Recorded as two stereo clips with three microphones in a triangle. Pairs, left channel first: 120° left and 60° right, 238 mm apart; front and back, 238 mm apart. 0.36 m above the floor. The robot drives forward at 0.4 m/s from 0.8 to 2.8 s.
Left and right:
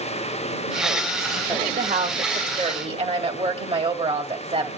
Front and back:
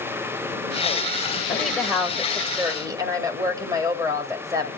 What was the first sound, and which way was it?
A woman speaking, 85° right.